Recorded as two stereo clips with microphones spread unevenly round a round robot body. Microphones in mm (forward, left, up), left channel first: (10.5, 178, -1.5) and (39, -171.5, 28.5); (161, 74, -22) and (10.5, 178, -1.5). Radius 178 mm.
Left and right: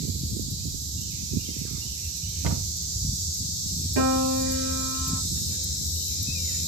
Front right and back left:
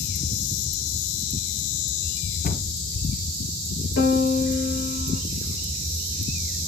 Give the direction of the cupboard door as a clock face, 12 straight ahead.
2 o'clock.